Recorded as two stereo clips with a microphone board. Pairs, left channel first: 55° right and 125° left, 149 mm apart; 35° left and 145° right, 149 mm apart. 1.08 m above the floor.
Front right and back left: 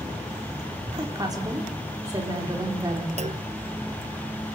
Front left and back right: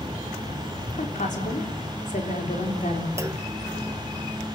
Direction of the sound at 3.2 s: 150° left.